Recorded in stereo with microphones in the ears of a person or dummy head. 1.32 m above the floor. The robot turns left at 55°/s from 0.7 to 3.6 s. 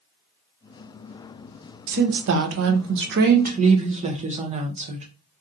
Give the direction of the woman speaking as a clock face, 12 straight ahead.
2 o'clock.